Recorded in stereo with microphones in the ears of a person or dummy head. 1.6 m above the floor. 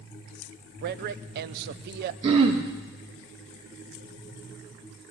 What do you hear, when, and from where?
0.8 s a man speaking: 60° right (ahead or behind), 0.6 m
2.2 s throat clearing: 35° right (ahead or behind), 1.8 m